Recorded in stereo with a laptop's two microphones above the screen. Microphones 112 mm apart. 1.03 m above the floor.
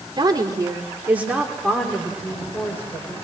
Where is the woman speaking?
40° right (ahead or behind), 2.5 m; by 3.1 s 25° left (ahead or behind), 4 m.